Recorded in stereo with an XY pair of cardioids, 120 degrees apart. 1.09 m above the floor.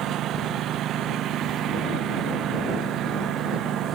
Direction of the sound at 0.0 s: 60° right.